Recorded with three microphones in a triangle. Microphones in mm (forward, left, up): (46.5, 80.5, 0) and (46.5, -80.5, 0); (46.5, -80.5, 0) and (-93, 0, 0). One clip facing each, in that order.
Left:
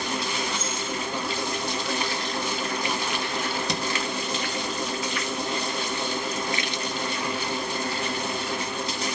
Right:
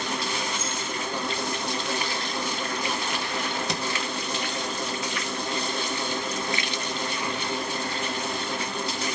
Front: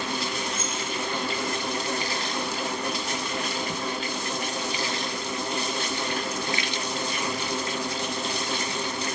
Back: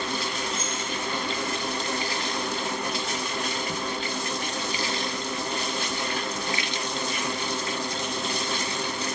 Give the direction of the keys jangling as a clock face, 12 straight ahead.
9 o'clock.